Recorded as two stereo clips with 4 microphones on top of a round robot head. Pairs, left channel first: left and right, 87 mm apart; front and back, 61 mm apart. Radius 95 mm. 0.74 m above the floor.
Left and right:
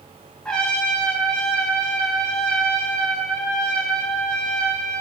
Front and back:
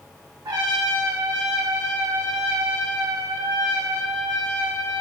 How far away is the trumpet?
About 0.8 m.